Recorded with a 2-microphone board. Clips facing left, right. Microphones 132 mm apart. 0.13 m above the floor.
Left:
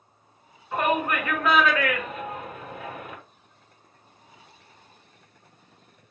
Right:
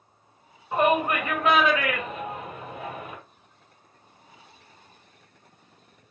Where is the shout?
25° right (ahead or behind), 1.8 m.